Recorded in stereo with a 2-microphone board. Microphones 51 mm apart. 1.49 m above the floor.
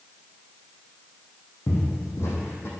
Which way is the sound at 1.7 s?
65° left (ahead or behind).